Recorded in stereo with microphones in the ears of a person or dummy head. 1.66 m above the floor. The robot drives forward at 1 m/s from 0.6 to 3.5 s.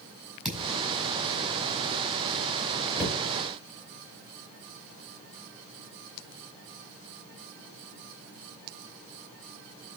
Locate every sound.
0.5 s a thud: centre (ahead or behind), 5.5 m
3.0 s a cupboard door: 5° right (ahead or behind), 5.5 m